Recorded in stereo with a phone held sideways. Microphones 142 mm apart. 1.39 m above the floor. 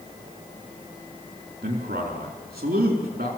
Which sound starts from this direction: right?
A man speaking, at 1.6 s.